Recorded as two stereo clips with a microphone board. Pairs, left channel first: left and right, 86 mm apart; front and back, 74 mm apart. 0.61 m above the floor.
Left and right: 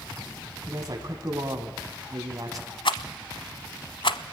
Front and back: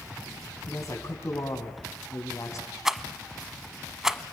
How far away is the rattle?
About 1.1 m.